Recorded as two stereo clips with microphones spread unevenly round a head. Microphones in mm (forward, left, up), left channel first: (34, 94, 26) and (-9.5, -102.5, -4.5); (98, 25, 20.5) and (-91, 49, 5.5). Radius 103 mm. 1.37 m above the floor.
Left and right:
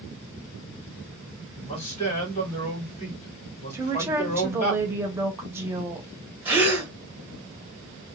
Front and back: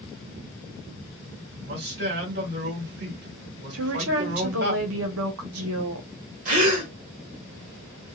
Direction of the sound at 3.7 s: Straight behind.